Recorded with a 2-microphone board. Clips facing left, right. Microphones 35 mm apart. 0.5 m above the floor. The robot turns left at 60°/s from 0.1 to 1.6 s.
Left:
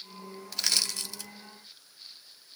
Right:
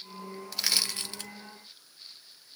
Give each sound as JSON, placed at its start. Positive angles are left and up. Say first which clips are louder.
{"t": 0.5, "sound": "crushing", "louder": "even", "side_deg": 0, "distance_m": 0.6}